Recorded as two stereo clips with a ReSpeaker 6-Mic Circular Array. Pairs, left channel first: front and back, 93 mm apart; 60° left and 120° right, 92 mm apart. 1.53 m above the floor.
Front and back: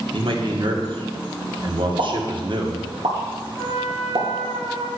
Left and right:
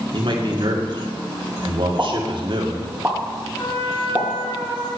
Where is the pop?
165° left, 2.5 m.